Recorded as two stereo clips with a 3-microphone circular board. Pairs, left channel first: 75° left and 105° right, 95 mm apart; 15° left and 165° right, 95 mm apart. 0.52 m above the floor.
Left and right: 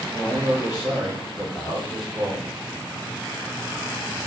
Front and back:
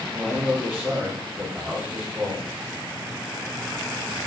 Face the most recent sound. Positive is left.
turn(degrees=130)